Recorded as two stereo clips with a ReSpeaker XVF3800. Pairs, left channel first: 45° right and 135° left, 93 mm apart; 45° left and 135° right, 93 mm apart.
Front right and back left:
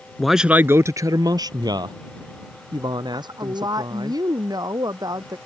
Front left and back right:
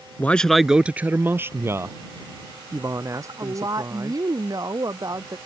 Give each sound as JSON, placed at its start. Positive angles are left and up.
{"t": 0.2, "sound": "a man speaking", "azimuth_deg": 30}
{"t": 3.1, "sound": "a woman speaking", "azimuth_deg": 180}